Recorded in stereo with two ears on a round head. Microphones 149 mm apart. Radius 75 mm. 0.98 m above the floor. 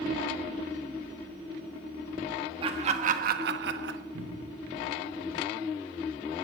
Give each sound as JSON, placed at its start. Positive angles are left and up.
{"t": 2.6, "sound": "laughter", "side_deg": -35, "distance_m": 1.5}
{"t": 4.1, "sound": "a cupboard door", "side_deg": -55, "distance_m": 4.5}